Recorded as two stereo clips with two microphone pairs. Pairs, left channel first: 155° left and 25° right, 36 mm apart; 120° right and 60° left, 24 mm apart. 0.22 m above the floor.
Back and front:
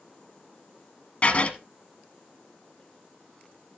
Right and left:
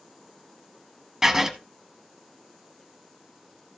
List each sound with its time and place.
1.2 s writing: 120° left, 1.1 m